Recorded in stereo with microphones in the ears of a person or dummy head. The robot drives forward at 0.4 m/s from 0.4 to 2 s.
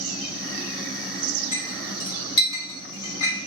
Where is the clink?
30° left (ahead or behind), 1.2 m.